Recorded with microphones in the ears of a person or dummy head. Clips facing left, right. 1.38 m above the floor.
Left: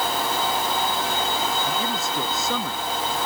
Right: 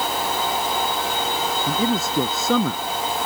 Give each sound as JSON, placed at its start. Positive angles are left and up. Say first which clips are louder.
{"t": 1.7, "sound": "a man speaking", "louder": "right 5 dB", "side_deg": -70}